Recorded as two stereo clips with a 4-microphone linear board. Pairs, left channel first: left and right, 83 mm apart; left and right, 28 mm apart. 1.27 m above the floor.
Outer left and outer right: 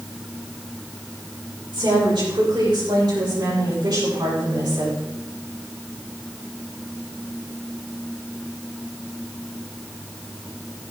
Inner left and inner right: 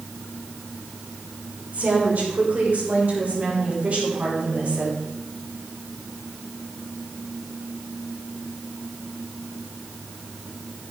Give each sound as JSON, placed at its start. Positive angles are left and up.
{"t": 1.7, "sound": "a woman speaking", "side_deg": -70, "distance_m": 5.5}